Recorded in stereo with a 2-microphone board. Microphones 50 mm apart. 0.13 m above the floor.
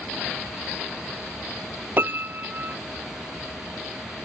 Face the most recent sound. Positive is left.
turn(degrees=-45)  # may be behind; listen again after turning